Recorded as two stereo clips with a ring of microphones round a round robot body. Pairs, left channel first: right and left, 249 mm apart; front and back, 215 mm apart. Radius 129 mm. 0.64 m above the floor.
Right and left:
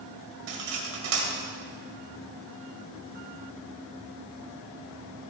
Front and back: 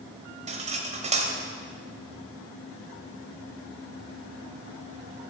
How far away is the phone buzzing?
I don't hear a phone buzzing.